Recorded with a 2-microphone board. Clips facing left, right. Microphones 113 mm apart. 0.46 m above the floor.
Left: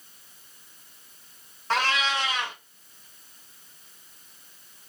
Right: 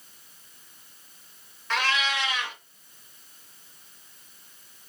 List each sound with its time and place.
1.7 s a cat meowing: 35° left (ahead or behind), 0.9 m